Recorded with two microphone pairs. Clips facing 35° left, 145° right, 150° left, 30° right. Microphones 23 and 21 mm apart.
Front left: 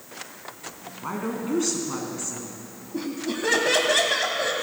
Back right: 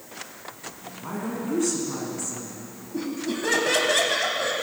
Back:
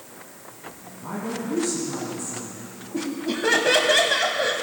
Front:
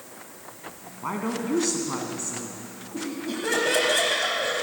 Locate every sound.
1.0 s a woman speaking: 25° right, 2.5 m
2.9 s laughter: 110° left, 1.1 m